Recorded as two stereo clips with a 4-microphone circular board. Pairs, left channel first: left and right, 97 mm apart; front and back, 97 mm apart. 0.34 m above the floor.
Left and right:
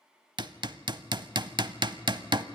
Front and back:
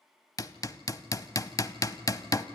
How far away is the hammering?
About 0.5 m.